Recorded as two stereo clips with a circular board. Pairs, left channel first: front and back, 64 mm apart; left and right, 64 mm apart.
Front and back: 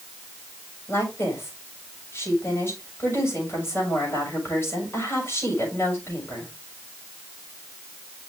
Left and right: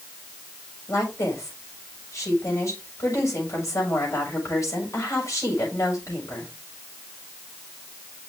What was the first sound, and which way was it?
A woman speaking, 50° left.